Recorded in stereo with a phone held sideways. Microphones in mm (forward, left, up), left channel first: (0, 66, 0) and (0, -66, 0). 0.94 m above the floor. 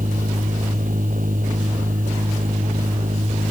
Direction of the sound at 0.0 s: 75° right (ahead or behind).